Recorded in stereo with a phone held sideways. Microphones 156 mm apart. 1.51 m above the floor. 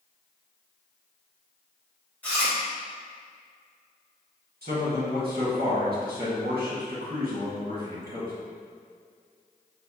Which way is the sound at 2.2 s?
10° left (ahead or behind).